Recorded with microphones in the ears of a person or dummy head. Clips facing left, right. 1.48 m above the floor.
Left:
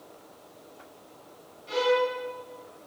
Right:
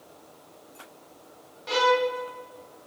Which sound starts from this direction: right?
A violin, at 1.7 s.